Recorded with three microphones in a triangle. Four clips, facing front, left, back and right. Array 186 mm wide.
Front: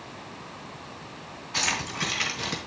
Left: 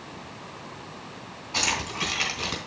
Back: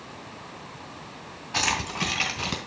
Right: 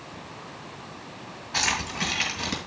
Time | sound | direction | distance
1.5 | keys jangling | 160° right | 2.5 m